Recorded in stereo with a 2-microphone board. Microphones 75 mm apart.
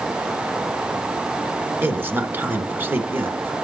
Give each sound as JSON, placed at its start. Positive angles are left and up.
{"t": 1.8, "sound": "a man speaking", "side_deg": -30, "distance_m": 2.0}